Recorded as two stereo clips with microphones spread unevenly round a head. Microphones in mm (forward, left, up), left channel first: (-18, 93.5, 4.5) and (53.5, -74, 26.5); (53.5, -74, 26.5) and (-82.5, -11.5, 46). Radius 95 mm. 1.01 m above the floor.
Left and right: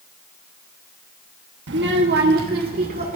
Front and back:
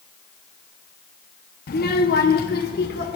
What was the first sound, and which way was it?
A child speaking, 40° right.